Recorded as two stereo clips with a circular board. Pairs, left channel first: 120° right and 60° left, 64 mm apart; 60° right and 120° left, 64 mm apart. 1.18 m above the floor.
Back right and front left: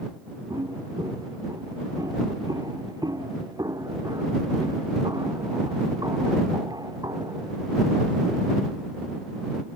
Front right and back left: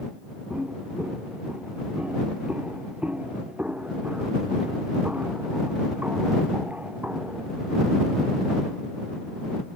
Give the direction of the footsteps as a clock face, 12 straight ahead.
10 o'clock.